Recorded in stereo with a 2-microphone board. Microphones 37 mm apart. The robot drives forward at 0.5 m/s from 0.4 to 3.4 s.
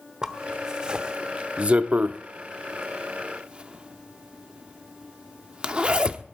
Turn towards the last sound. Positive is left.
turn(degrees=-30)  # may be behind; listen again after turning